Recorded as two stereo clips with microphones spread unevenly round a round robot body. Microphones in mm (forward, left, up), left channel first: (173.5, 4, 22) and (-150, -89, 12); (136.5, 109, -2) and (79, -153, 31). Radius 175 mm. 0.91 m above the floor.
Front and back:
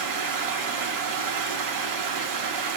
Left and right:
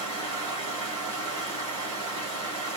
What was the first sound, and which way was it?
Running water, 165° left.